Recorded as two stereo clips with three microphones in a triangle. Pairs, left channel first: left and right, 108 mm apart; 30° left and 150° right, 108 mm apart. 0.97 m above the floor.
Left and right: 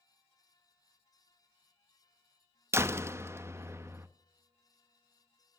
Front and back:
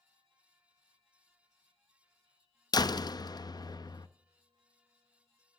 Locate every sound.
2.7 s a door slam: 25° right, 0.6 m